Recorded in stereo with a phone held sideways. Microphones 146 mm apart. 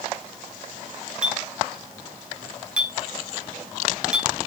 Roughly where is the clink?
Centre.